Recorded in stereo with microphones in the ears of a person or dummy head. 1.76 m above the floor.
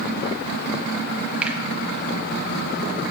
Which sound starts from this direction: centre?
A finger snap, at 1.4 s.